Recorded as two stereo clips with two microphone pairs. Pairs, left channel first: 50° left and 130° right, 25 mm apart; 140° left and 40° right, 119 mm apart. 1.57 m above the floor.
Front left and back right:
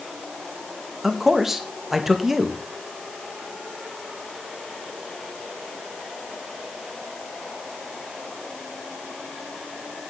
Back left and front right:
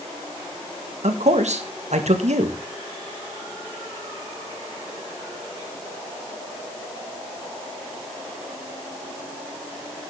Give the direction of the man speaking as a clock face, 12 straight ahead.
2 o'clock.